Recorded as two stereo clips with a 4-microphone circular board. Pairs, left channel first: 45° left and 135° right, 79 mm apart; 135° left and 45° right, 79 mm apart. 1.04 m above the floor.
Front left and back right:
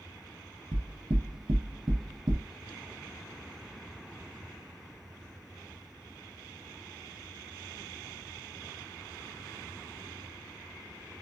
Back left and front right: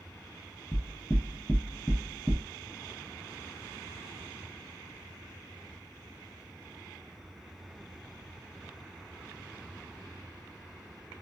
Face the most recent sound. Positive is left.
turn(degrees=-150)